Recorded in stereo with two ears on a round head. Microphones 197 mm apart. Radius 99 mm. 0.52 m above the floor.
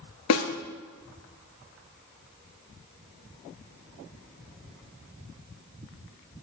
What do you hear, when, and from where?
0.3 s a snare drum: 80° left, 1.8 m